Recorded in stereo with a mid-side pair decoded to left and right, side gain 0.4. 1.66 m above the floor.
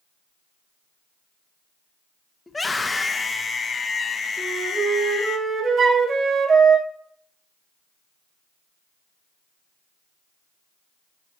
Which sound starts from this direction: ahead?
A scream, at 2.5 s.